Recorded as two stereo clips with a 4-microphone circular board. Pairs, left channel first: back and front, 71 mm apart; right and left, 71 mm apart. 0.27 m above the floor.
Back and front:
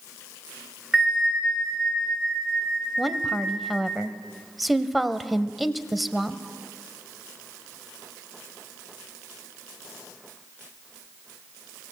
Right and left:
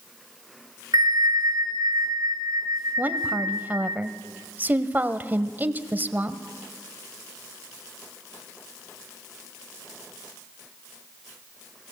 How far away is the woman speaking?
About 1.0 m.